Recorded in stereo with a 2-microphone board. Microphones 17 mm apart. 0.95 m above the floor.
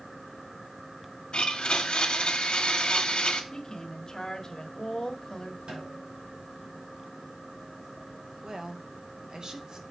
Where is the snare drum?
80° right, 4 m.